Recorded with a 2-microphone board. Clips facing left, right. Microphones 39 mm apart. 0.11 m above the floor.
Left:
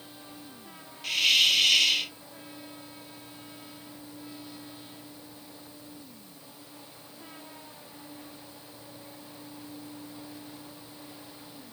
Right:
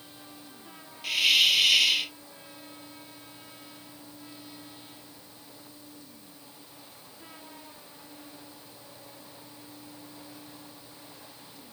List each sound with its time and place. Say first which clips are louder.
1.0 s a hiss: right 1 dB; 5° right (ahead or behind)